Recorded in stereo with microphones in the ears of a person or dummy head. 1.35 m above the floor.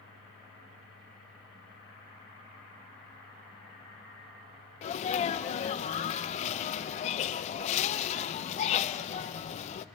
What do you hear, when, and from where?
4.8 s a sneeze: 35° left (ahead or behind), 0.7 m